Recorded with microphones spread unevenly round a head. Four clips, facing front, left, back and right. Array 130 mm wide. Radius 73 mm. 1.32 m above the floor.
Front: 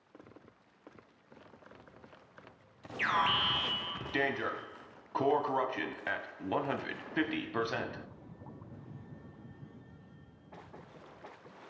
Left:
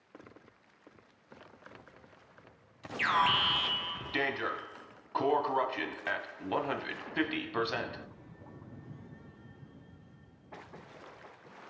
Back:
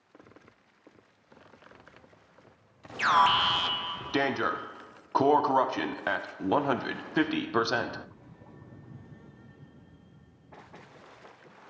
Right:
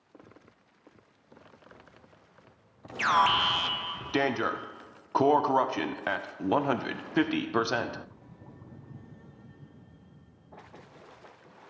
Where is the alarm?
135° right, 1.2 m.